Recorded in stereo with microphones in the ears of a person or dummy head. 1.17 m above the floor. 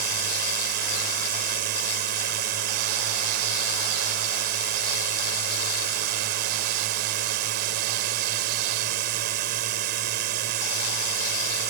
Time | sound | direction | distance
0.0 | a drone | 55° right (ahead or behind) | ?